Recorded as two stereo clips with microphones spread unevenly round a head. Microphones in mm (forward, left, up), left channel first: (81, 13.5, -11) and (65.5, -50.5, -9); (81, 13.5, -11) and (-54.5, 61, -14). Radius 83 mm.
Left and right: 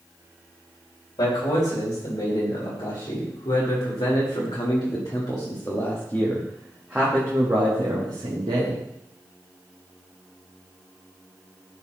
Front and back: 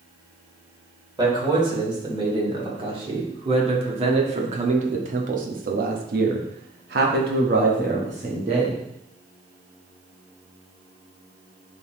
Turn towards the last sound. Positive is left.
turn(degrees=-140)